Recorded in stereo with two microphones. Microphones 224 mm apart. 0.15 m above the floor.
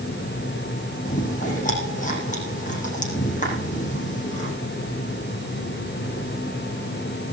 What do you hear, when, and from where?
1.1 s chewing: 35° left (ahead or behind), 7 m